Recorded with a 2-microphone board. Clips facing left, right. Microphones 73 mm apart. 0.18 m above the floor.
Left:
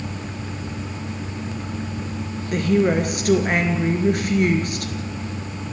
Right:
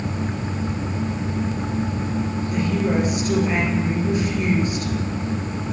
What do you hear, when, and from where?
2.5 s a woman speaking: 65° left (ahead or behind), 3.5 m